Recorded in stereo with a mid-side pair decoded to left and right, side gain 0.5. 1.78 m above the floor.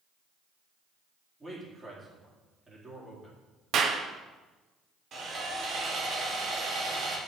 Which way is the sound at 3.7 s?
60° right.